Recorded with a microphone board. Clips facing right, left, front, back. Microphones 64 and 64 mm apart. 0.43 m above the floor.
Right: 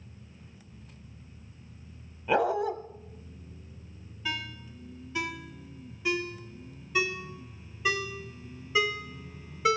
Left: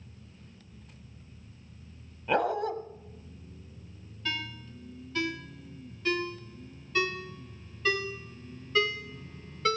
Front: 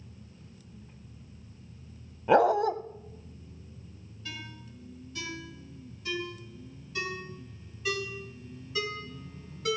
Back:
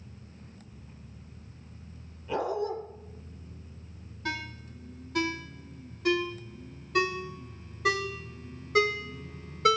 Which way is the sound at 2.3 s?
5° right.